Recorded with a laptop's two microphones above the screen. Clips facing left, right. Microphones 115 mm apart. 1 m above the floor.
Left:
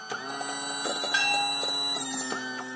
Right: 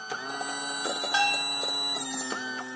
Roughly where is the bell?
Right.